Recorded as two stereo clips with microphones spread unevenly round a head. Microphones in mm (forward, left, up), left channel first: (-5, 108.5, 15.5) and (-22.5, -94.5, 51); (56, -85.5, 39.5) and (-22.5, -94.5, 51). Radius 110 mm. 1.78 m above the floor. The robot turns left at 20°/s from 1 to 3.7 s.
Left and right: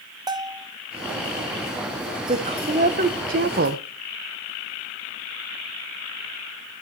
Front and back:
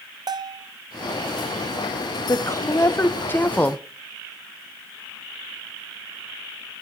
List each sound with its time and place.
0.3 s a bell: 160° right, 0.9 m
2.3 s a woman speaking: 40° right, 1.0 m; by 3.9 s 70° right, 1.0 m